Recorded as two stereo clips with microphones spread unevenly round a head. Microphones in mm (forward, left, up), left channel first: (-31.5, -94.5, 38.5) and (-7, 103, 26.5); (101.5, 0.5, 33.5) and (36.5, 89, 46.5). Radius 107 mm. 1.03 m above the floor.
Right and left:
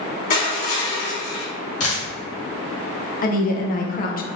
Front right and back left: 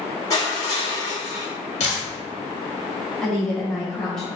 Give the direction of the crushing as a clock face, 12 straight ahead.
4 o'clock.